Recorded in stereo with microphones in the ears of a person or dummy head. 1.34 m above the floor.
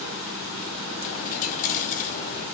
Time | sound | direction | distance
1.0 | a dropped coin | 40° left (ahead or behind) | 1.1 m